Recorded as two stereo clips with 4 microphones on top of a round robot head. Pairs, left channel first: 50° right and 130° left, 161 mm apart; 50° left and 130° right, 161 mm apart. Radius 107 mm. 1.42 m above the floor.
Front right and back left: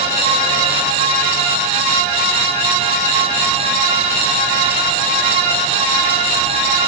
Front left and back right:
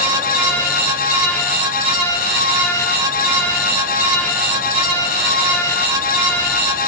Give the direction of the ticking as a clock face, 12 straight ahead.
I don't hear ticking.